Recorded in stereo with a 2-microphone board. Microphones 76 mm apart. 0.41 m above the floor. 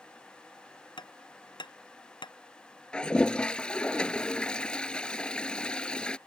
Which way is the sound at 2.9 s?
10° left (ahead or behind).